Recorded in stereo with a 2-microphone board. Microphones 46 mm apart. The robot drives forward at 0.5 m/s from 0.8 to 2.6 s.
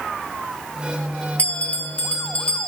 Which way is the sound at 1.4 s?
35° left (ahead or behind).